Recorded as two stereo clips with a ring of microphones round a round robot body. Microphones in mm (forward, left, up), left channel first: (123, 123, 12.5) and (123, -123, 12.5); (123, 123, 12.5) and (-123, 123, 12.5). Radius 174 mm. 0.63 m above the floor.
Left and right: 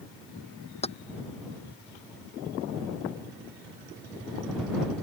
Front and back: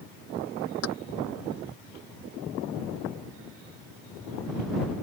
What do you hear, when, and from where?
0.8 s keys jangling: 25° left